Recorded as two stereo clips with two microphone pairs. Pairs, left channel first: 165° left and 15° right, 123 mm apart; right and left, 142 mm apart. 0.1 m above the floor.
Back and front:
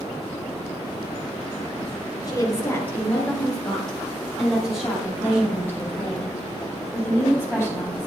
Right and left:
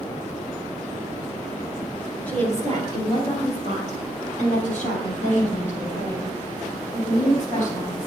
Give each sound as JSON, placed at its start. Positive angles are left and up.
{"t": 2.3, "sound": "a woman speaking", "azimuth_deg": -160, "distance_m": 1.5}
{"t": 5.2, "sound": "a woman speaking", "azimuth_deg": -85, "distance_m": 3.5}